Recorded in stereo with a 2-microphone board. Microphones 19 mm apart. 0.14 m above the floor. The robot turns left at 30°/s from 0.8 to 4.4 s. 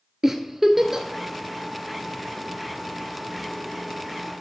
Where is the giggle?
25° right (ahead or behind), 1.0 m; by 1.1 s 30° right (ahead or behind), 1.0 m.